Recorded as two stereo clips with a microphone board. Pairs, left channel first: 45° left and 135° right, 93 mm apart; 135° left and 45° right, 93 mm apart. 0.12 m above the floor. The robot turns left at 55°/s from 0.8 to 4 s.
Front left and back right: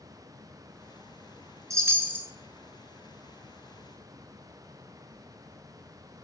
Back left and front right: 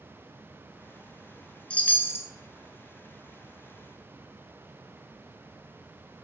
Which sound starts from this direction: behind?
A chime, at 1.7 s.